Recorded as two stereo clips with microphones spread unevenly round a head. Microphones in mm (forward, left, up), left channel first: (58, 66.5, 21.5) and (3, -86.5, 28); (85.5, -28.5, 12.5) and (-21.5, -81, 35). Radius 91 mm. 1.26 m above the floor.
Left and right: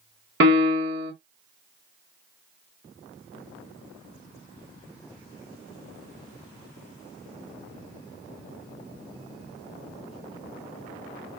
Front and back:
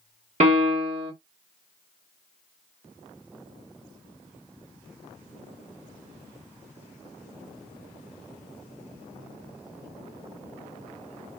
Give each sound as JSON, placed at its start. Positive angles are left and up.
{"t": 0.4, "sound": "a piano", "azimuth_deg": -135, "distance_m": 1.4}